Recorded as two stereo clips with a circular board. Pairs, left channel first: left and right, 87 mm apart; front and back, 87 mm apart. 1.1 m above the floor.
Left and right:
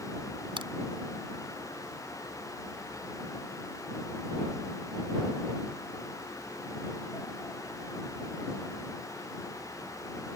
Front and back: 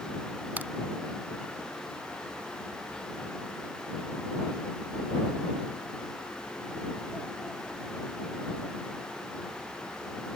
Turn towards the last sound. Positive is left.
turn(degrees=-110)